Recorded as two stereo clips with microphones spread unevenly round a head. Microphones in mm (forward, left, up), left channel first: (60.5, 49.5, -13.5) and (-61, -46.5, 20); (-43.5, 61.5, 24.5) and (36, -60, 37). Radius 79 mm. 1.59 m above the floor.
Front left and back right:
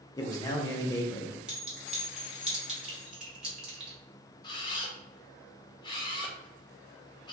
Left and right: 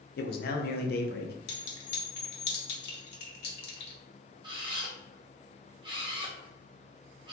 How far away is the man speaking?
About 0.7 m.